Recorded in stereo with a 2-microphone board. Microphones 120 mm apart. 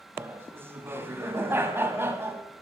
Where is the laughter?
20° right (ahead or behind), 1.5 m.